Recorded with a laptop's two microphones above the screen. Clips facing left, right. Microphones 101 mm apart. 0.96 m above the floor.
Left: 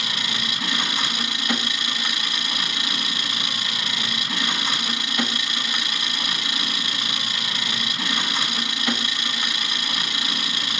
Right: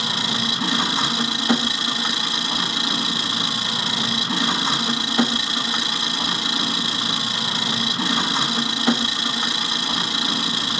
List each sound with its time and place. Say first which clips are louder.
0.0 s an engine running: right 5 dB; 30° right (ahead or behind), 1.0 m